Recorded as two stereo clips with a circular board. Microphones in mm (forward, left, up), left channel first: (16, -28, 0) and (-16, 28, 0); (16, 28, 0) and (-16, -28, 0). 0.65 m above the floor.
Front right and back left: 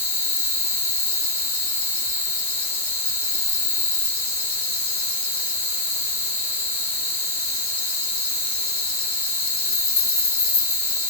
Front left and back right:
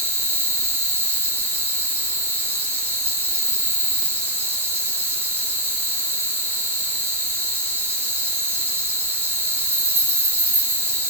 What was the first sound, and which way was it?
An insect, 5° right.